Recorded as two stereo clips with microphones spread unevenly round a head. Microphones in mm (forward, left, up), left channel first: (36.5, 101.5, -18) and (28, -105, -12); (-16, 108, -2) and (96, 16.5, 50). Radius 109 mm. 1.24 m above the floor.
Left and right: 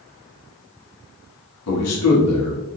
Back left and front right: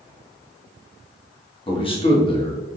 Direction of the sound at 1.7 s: 85° left.